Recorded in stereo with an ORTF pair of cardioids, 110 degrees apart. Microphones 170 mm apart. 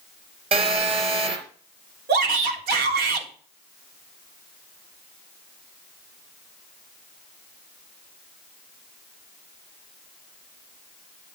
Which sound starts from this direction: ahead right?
A phone buzzing, at 0.5 s.